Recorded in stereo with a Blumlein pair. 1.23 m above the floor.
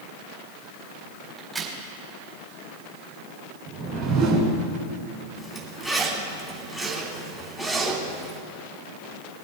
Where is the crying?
No crying in this recording.